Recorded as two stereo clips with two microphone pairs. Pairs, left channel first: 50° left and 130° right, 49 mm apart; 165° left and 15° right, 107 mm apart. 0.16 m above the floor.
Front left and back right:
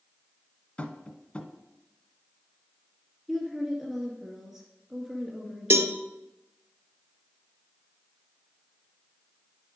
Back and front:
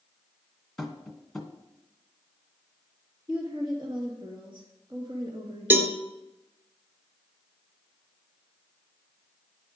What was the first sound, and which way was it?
Tapping, 80° left.